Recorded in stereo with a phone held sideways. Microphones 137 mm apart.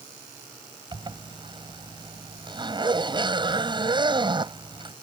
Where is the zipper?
35° right (ahead or behind).